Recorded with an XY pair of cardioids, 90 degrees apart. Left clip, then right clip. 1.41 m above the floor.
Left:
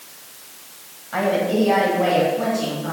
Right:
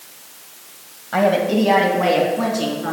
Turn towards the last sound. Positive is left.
turn(degrees=-65)